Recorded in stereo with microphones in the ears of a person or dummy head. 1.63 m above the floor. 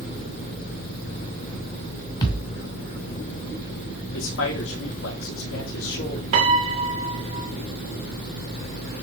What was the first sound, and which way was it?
A thud, 20° left (ahead or behind).